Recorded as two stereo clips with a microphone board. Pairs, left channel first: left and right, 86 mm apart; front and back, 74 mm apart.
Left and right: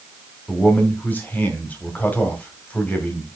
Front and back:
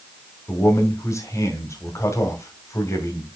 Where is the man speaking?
25° left, 2 m.